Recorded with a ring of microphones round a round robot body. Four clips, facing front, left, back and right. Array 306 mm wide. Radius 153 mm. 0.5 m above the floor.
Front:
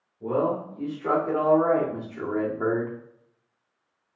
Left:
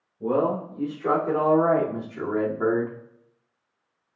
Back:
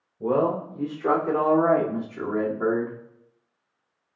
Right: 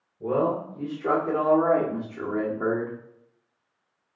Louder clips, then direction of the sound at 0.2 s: Left 1 dB, back 2 dB; 175° left.